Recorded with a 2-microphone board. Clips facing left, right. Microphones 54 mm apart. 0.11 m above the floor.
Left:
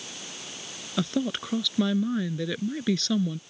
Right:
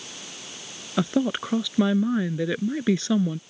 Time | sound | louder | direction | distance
1.0 | a woman speaking | right 4 dB | 20° right (ahead or behind) | ?